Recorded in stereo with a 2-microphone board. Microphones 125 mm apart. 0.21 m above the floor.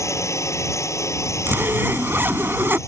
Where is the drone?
25° left (ahead or behind).